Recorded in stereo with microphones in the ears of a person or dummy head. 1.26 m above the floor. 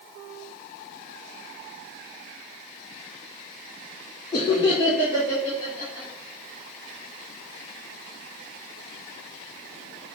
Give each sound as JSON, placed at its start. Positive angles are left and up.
{"t": 4.3, "sound": "laughter", "side_deg": 20, "distance_m": 0.6}